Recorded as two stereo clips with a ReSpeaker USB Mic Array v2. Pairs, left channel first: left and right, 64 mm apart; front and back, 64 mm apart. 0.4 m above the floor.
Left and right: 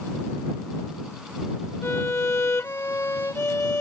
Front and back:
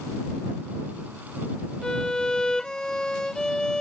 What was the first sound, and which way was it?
A violin, 75° left.